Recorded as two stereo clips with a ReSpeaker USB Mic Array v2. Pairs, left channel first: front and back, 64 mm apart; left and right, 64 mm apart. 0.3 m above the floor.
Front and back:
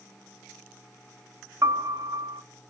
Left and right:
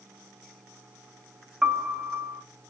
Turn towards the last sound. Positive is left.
turn(degrees=-165)